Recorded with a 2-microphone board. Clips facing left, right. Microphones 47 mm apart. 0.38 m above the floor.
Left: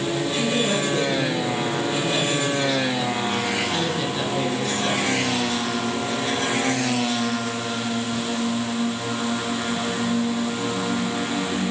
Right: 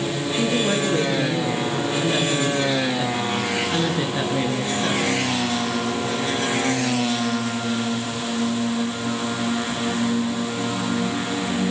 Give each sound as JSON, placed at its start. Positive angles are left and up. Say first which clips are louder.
{"t": 0.3, "sound": "a woman speaking", "louder": "right 3 dB", "side_deg": -25, "distance_m": 7.0}